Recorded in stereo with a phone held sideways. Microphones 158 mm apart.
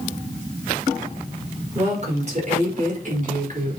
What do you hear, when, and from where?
1.8 s a woman speaking: 45° right (ahead or behind), 5 m; by 3.8 s 60° right (ahead or behind), 4.5 m